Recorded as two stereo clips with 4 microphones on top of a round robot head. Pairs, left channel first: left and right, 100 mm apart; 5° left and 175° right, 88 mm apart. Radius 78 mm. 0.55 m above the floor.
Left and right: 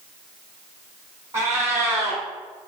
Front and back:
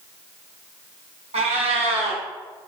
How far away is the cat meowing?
About 1.0 m.